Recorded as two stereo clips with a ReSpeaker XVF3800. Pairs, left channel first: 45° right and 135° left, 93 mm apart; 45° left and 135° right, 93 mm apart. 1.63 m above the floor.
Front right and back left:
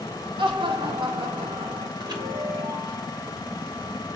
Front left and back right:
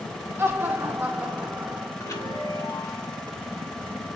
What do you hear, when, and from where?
0.4 s laughter: 160° left, 2.0 m; by 1.9 s 145° left, 2.5 m
2.0 s a chime: 95° left, 3 m